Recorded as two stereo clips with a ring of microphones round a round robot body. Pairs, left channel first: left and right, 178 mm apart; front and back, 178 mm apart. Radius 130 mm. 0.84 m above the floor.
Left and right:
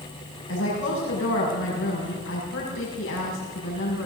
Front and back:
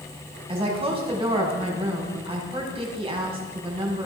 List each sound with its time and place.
0.5 s a woman speaking: 120° left, 6 m